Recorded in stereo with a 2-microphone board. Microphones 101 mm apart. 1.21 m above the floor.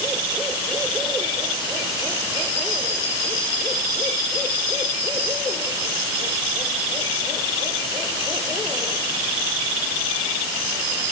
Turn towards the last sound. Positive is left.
No sound to turn to.